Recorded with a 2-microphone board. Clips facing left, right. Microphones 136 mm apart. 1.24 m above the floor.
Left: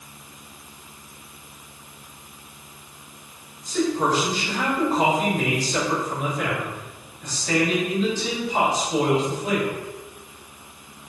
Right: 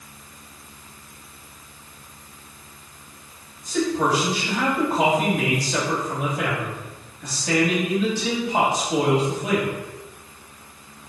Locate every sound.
3.6 s a man speaking: 80° right, 3 m